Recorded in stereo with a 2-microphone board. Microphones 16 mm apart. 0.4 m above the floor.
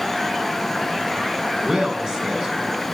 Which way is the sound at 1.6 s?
40° right (ahead or behind).